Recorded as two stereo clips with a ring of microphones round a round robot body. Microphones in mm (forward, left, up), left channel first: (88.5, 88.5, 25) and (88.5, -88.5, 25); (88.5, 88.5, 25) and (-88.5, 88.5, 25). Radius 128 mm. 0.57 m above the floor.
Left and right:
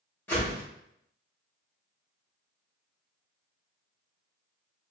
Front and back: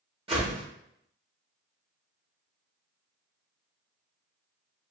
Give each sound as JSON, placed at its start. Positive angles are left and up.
{"t": 0.3, "sound": "a whoosh", "azimuth_deg": 160, "distance_m": 1.2}